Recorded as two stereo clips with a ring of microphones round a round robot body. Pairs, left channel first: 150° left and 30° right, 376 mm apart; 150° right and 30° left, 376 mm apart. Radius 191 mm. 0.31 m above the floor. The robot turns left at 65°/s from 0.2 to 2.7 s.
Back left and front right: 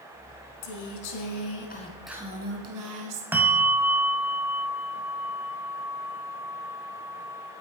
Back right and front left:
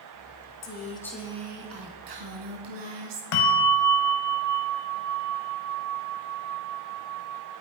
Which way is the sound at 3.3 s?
115° right.